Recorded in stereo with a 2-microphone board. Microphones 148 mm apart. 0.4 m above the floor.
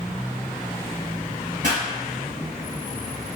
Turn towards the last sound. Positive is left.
turn(degrees=-60)  # may be behind; listen again after turning